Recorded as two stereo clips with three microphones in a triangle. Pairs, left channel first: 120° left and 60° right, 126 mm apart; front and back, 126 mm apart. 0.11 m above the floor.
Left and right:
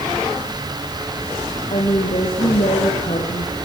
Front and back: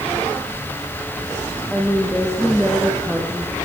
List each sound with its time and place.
1.7 s a woman speaking: 85° left, 5.5 m